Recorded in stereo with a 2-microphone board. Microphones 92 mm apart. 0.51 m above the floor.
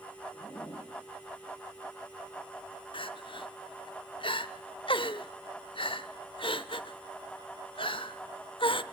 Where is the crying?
70° left (ahead or behind), 0.7 m.